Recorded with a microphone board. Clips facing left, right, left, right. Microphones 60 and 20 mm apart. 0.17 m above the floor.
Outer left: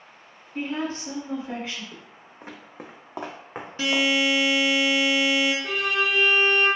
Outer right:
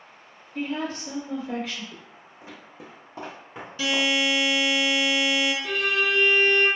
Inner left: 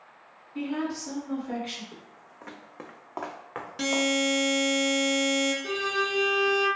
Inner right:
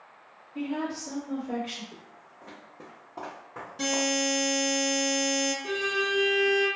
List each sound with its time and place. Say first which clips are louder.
0.6 s a woman speaking: outer left 1 dB, inner left 1 dB; 35° left (ahead or behind), 1.5 m
1.9 s footsteps: even, inner left 1 dB; 20° left (ahead or behind), 0.7 m; by 4.1 s 65° left (ahead or behind), 1.0 m
3.8 s a buzzer: outer left 2 dB, inner left 2 dB; 40° left (ahead or behind), 0.7 m
5.6 s a violin: even, even; 10° left (ahead or behind), 1.7 m